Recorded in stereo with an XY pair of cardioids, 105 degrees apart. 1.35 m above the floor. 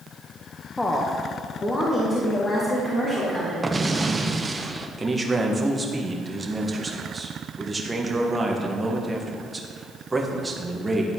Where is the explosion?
20° right, 0.6 m.